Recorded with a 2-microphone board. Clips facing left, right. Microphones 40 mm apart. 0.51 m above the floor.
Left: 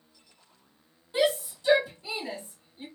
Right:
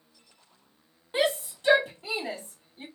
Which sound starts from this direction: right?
A shout, at 1.1 s.